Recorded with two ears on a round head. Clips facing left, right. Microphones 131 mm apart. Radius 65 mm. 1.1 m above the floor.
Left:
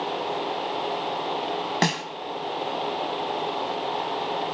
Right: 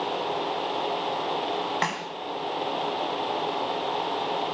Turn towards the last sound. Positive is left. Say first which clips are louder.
# left 4 dB
turn(degrees=45)  # may be behind; listen again after turning